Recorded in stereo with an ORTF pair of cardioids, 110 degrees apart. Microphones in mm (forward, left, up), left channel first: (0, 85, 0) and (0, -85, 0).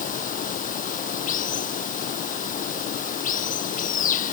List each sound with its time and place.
0.0 s running water: 50° left